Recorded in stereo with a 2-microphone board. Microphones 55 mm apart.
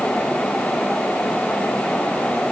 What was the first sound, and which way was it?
Only background noise.